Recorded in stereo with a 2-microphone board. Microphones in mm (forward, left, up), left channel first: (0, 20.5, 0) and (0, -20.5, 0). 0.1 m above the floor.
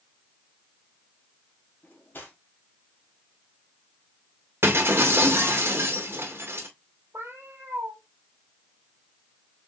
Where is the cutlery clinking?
50° left (ahead or behind), 2.0 m.